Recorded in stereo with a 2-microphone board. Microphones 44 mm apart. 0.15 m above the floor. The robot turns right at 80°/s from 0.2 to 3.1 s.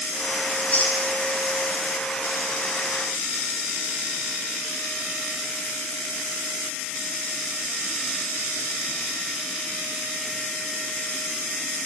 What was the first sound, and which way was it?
Chewing, 30° left (ahead or behind).